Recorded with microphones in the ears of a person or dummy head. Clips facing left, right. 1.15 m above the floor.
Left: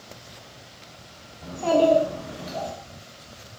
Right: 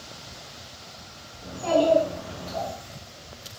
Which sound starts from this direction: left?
A child speaking, at 1.4 s.